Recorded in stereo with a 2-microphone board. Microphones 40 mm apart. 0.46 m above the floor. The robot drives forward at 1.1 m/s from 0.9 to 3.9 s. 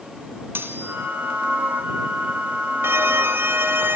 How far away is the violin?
About 2.5 m.